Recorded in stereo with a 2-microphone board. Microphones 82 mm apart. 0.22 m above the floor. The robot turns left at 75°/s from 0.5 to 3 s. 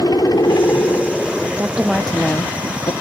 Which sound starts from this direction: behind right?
A woman speaking, at 1.6 s.